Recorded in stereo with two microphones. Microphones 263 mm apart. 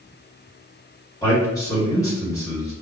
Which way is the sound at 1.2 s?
15° left (ahead or behind).